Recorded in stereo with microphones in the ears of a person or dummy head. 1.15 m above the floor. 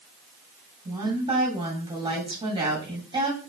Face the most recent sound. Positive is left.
turn(degrees=-25)  # may be behind; listen again after turning